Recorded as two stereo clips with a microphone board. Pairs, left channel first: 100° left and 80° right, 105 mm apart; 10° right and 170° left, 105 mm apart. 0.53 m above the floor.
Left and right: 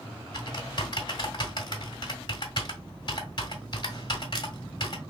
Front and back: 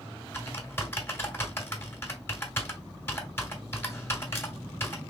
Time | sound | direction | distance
0.3 | typing on a keyboard | 55° left | 1.8 m